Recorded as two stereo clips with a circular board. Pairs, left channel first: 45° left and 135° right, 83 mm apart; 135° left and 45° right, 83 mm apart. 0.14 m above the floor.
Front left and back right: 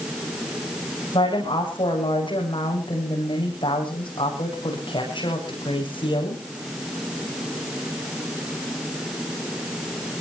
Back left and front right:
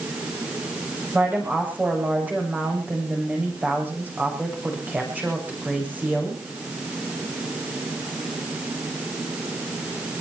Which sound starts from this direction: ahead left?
A woman speaking, at 1.1 s.